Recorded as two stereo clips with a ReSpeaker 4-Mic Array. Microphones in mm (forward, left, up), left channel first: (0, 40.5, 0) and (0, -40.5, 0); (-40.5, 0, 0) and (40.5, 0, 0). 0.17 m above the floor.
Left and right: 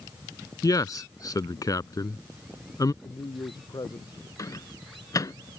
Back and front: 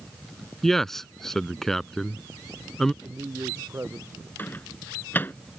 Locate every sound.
0.6 s a man speaking: 95° left
3.0 s a man speaking: 60° left
4.4 s a microwave: 120° left